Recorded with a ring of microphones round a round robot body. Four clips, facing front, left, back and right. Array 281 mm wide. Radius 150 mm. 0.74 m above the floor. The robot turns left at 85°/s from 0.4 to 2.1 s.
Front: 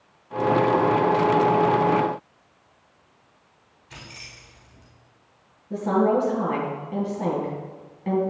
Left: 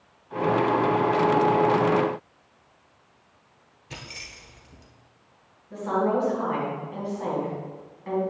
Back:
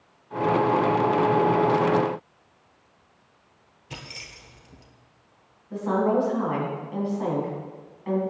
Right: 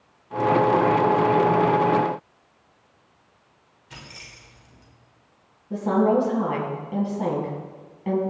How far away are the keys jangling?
About 2 m.